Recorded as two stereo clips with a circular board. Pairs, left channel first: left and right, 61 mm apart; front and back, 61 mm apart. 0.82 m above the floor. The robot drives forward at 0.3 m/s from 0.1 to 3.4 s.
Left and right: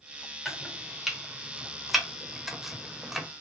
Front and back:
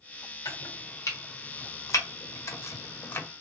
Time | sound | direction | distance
0.5 | chopping | 5° right | 1.2 m